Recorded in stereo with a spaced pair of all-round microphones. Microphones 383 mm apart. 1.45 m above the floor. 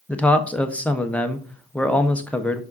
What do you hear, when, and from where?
0.1 s a man speaking: 5° left (ahead or behind), 0.9 m